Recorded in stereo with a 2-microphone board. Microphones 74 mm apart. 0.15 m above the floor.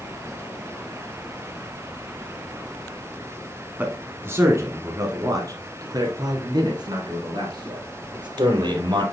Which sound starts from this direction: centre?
A man speaking, at 3.8 s.